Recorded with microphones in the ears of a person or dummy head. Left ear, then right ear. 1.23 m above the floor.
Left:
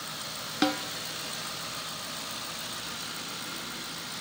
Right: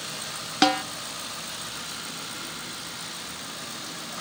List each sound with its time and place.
0.6 s a snare drum: 25° right (ahead or behind), 0.7 m